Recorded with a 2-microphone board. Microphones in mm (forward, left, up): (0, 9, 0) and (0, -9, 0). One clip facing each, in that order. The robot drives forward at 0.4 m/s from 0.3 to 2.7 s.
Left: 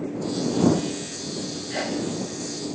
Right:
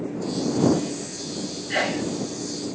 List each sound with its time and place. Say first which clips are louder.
1.7 s a sneeze: right 4 dB; 60° right (ahead or behind), 0.6 m; by 2.1 s 70° right (ahead or behind), 0.6 m